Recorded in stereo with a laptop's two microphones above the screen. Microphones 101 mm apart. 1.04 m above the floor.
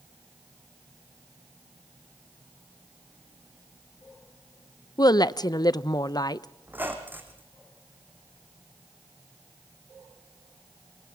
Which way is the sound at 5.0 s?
40° left (ahead or behind).